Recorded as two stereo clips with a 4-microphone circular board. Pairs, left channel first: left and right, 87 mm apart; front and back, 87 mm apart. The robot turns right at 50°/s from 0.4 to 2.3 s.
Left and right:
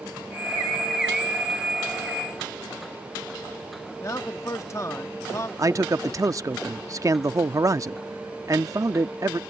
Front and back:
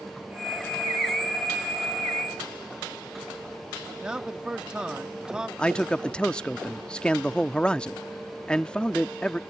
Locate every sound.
4.0 s a man speaking: 105° left
5.6 s a man speaking: 75° right